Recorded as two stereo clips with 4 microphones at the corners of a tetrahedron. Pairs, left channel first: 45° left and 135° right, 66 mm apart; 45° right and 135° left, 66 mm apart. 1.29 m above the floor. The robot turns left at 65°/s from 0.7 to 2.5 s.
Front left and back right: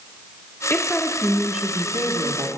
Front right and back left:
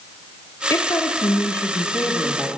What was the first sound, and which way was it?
A woman speaking, 10° right.